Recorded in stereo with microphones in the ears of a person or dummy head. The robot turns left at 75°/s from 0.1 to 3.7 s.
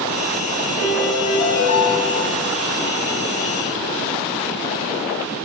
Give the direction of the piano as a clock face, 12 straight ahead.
6 o'clock.